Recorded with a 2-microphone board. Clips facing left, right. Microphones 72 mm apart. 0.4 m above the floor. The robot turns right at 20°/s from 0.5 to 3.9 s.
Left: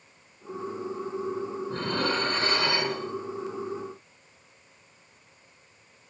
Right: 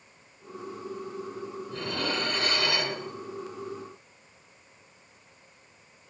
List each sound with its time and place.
1.7 s dishes clattering: 50° left (ahead or behind), 3 m; by 3.0 s 20° left (ahead or behind), 3 m